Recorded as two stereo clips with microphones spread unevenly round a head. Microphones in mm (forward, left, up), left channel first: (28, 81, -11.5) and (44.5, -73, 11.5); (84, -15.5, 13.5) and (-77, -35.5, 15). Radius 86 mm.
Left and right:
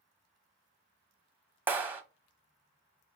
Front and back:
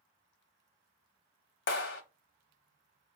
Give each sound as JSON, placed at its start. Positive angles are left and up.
{"t": 1.7, "sound": "a clap", "azimuth_deg": -5, "distance_m": 1.0}